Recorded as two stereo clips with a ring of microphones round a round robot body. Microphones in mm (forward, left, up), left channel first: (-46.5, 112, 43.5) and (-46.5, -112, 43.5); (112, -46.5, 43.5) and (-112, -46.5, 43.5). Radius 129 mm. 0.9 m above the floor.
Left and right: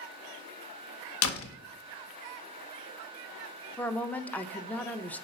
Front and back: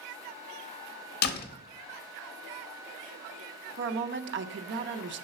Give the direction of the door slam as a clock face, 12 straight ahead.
10 o'clock.